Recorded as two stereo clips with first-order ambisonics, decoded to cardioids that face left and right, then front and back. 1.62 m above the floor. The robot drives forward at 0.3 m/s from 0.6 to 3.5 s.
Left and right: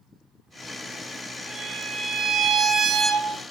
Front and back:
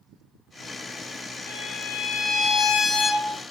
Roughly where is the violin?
Ahead.